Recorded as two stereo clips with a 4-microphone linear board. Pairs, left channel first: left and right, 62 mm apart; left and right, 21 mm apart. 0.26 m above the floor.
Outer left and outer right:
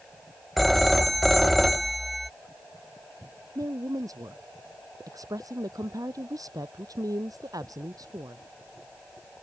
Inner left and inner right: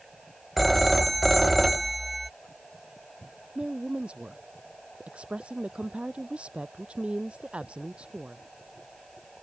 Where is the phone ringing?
Centre (ahead or behind).